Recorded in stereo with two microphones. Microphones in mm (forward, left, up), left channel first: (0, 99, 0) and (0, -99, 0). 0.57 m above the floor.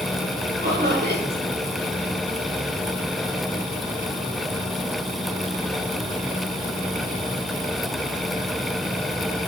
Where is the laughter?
50° right (ahead or behind), 2 m.